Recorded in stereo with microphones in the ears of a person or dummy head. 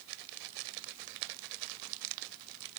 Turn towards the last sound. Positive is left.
No sound to turn to.